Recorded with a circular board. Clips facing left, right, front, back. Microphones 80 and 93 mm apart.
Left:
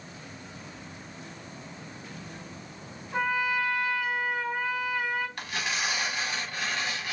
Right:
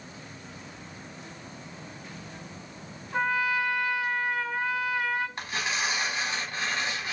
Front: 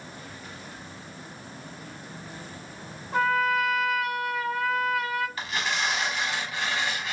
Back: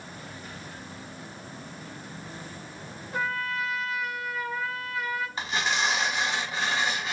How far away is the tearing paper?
About 1.0 m.